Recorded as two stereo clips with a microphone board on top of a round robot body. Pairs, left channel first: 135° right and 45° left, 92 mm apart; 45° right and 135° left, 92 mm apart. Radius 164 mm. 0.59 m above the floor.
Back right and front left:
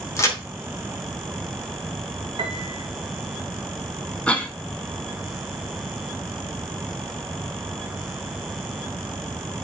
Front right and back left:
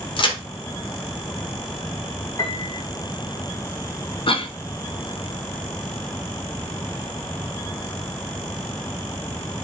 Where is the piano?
5° left, 0.8 m.